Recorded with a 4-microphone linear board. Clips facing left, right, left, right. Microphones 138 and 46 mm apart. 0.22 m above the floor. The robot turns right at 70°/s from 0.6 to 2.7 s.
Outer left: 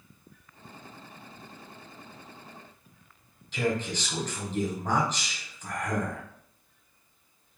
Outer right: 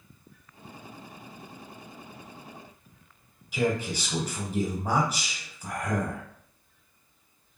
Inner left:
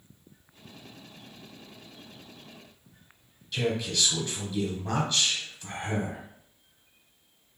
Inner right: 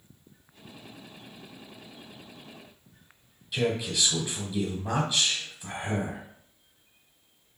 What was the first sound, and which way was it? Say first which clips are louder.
A man speaking: outer right 2 dB, inner right 1 dB; 10° right (ahead or behind).